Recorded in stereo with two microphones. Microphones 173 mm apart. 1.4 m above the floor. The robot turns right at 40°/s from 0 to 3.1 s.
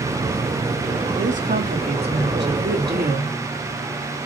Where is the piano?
No piano in this recording.